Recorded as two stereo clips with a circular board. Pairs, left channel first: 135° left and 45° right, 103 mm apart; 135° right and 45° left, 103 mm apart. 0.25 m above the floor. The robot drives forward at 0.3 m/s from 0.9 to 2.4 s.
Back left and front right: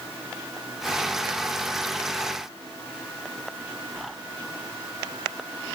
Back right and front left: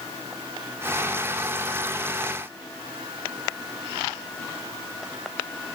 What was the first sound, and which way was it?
Only background noise.